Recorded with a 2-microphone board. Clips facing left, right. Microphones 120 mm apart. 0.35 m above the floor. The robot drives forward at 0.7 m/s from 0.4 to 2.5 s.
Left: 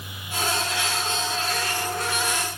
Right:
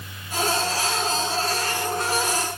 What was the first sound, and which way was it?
Only background noise.